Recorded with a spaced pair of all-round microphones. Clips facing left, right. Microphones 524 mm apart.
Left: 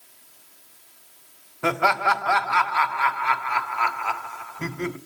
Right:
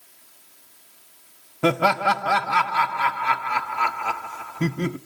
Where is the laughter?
55° right (ahead or behind), 0.5 m.